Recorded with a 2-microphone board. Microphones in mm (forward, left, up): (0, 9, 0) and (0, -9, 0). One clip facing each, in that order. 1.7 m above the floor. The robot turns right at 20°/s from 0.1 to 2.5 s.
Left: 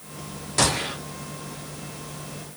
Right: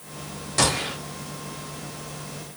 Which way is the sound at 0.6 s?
5° left (ahead or behind).